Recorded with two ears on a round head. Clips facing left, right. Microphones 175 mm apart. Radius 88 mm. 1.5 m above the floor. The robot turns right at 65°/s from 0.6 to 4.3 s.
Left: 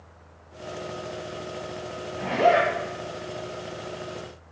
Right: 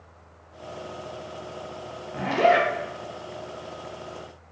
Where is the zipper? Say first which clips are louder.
Even; 95° right, 0.5 m; by 2.7 s 60° right, 0.5 m.